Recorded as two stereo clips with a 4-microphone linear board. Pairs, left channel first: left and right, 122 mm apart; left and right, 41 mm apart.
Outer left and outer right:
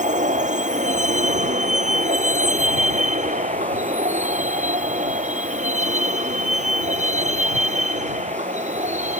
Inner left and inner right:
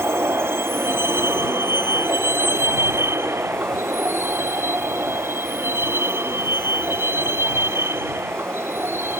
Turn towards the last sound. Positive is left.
turn(degrees=-75)  # may be behind; listen again after turning